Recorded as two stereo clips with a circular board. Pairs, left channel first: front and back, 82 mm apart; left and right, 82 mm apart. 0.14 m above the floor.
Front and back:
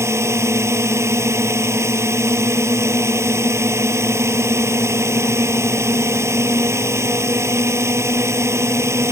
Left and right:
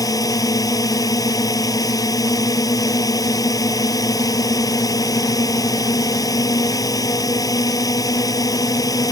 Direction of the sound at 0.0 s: 130° left.